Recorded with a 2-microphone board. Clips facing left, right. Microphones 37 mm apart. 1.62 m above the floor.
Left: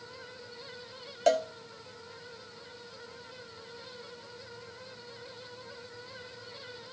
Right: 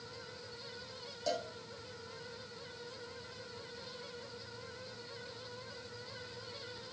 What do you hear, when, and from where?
1.3 s a cowbell: 65° left (ahead or behind), 0.8 m